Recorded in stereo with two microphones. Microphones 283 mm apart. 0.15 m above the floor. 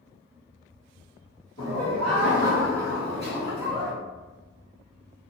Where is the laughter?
25° left (ahead or behind), 1.7 m; by 3.9 s 20° left (ahead or behind), 1.8 m.